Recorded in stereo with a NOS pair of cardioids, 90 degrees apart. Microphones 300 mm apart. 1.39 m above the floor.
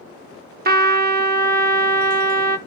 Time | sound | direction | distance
0.7 | a trumpet | 30° right | 0.9 m